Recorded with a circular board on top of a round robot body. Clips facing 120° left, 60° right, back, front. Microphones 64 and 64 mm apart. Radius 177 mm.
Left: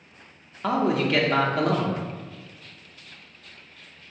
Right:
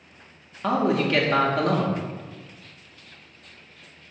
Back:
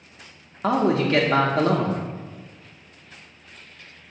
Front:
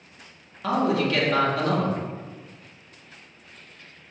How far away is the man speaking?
About 0.6 m.